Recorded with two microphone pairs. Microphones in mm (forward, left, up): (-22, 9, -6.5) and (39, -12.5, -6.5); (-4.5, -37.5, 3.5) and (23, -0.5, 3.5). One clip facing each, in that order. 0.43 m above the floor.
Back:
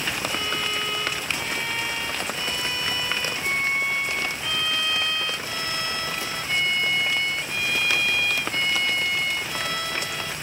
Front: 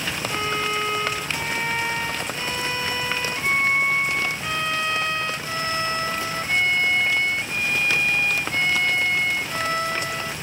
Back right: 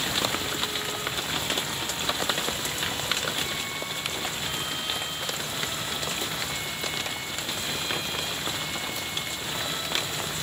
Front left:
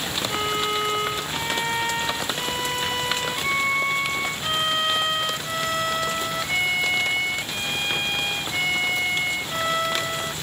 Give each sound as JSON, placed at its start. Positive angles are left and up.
{"t": 0.3, "sound": "a violin", "azimuth_deg": 35}